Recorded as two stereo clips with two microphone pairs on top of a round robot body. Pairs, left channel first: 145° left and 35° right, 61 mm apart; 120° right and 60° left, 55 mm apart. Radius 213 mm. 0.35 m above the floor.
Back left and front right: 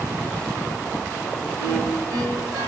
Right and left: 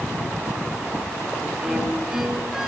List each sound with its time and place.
1.6 s a violin: 25° right, 4 m